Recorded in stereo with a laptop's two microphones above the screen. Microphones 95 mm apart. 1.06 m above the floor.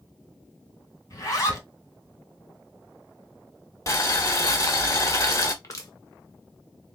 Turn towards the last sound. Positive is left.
turn(degrees=35)  # may be behind; listen again after turning